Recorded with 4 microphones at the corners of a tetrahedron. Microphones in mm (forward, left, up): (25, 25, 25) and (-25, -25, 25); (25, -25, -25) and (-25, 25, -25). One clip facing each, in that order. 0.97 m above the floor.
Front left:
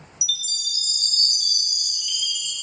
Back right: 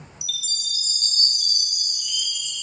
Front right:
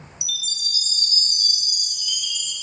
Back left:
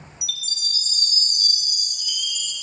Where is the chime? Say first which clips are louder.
Front left 2 dB, front right 1 dB; straight behind, 1.2 m.